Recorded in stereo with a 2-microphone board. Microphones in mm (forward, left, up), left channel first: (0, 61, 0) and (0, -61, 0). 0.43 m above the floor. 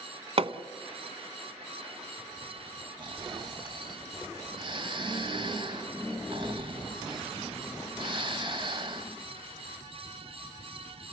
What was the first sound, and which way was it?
Hammering, 50° right (ahead or behind).